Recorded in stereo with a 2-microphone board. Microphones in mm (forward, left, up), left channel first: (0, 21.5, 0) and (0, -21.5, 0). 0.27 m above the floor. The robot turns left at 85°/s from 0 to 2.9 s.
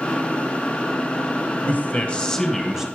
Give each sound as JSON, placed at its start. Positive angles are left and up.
{"t": 1.6, "sound": "a man speaking", "azimuth_deg": 85, "distance_m": 1.2}